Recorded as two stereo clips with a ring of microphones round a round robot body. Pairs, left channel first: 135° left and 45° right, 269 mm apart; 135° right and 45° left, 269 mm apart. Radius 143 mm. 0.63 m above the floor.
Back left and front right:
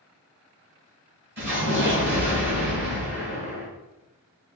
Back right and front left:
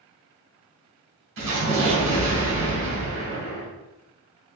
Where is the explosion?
5° left, 1.8 m.